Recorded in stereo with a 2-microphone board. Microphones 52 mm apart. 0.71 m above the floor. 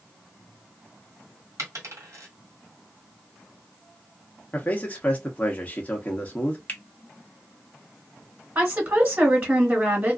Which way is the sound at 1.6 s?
70° right (ahead or behind).